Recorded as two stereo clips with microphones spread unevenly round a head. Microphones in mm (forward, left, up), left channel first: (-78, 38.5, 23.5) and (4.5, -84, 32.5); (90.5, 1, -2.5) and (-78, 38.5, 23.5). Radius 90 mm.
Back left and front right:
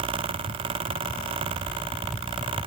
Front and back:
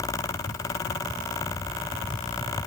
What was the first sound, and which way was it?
Only background noise.